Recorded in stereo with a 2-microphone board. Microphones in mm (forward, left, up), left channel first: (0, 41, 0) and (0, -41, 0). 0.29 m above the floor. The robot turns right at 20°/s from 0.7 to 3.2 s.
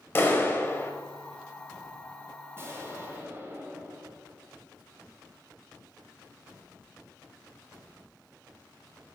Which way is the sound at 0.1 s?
30° left (ahead or behind).